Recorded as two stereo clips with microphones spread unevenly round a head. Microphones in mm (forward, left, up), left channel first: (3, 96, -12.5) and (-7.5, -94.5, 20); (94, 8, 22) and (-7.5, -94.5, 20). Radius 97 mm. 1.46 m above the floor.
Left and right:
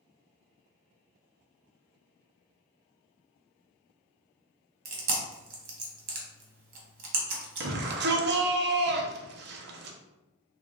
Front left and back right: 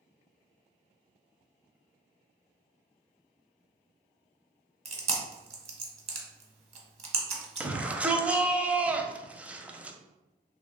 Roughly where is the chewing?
Right.